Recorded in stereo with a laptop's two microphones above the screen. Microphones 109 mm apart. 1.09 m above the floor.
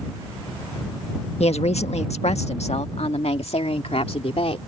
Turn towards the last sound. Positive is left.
turn(degrees=65)  # may be behind; listen again after turning